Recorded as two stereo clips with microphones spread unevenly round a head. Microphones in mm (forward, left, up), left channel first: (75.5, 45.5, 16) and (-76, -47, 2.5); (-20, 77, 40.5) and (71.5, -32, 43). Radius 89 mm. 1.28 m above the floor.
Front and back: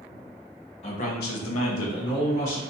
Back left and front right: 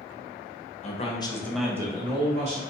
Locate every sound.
0.8 s a man speaking: 90° left, 1.0 m; by 2.6 s 10° right, 1.4 m